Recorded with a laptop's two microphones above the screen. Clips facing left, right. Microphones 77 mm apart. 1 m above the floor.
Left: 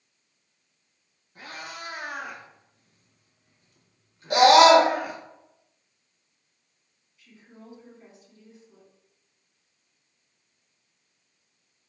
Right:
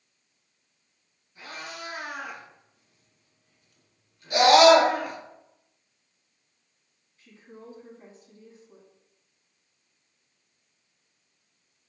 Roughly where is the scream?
Left.